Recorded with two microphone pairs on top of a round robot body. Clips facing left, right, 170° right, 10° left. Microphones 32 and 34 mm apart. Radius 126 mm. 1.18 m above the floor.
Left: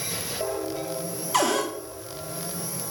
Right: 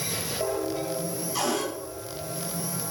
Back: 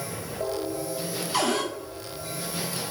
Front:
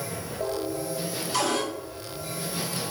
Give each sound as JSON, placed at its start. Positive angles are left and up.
{"t": 1.3, "sound": "a cupboard door", "azimuth_deg": 115, "distance_m": 2.0}